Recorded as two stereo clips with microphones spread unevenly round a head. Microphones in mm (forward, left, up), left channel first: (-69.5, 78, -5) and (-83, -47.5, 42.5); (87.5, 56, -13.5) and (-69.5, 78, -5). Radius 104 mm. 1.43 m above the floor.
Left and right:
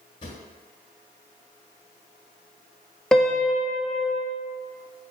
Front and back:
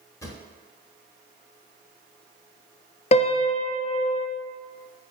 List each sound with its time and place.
0.2 s a drawer: 30° left, 1.2 m
3.1 s a piano: 30° right, 0.5 m